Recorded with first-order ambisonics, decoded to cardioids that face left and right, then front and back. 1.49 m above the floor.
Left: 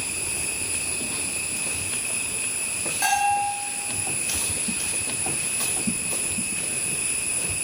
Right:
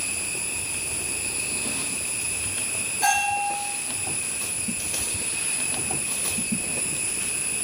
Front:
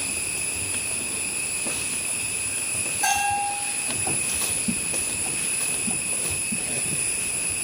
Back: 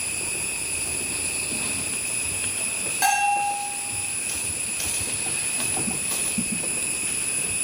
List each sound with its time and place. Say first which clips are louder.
3.0 s a bell: left 1 dB, back 2 dB; 160° left, 4 m